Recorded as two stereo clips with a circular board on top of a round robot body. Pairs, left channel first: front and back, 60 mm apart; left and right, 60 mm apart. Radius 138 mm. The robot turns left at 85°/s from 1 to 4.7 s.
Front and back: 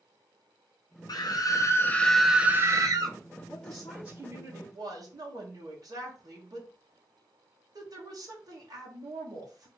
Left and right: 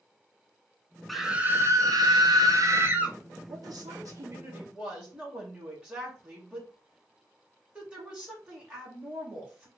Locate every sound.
1.1 s a scream: 5° left, 0.6 m; by 3.2 s 170° right, 0.6 m
3.5 s a woman speaking: 60° right, 1.8 m; by 9.7 s 165° right, 1.8 m